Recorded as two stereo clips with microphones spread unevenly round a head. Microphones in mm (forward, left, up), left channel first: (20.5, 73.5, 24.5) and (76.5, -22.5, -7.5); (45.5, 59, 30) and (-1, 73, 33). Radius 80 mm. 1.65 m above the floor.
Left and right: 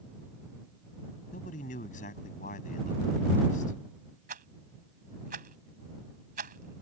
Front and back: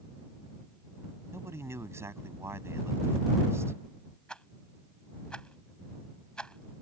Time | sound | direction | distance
1.3 | a man speaking | 130° left | ?
4.3 | a rattle | 100° right | ?